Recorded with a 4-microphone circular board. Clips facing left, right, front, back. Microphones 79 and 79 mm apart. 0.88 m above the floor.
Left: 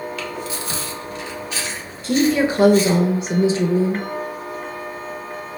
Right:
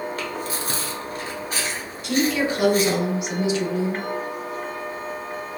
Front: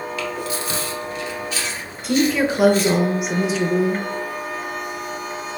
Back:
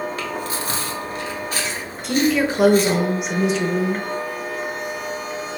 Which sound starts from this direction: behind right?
Chewing, at 0.2 s.